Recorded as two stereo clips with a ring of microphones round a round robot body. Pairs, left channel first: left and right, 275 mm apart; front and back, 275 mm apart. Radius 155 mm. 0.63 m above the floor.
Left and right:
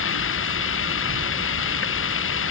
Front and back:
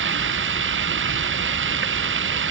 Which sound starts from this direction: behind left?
Running water, at 0.0 s.